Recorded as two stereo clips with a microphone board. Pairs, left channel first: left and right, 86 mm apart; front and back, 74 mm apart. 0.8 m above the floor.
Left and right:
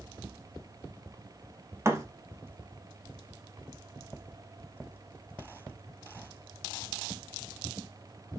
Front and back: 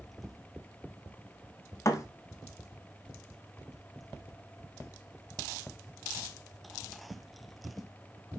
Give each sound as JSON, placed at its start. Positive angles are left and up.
{"t": 1.9, "sound": "a thud", "azimuth_deg": -35, "distance_m": 1.3}